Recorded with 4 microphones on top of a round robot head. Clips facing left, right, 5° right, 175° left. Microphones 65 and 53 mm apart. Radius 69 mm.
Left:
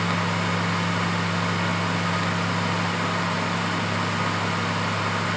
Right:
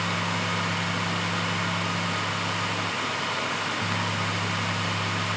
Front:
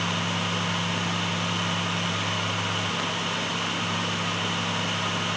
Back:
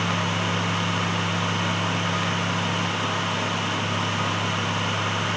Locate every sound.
Only background noise.